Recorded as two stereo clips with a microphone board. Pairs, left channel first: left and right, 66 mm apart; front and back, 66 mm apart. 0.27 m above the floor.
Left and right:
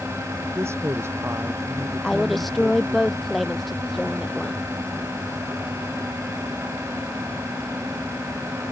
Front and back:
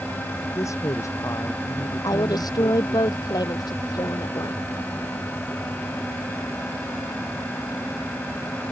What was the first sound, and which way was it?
A woman speaking, 40° right.